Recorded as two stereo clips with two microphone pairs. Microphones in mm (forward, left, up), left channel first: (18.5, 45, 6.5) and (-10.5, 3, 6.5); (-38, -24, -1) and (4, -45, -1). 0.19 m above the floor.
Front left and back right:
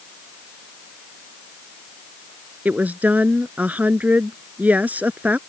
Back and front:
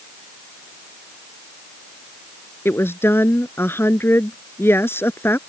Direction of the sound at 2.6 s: Straight behind.